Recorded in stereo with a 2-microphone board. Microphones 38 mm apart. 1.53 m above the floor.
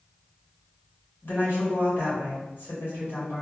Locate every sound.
1.2 s a woman speaking: 70° left (ahead or behind), 1.6 m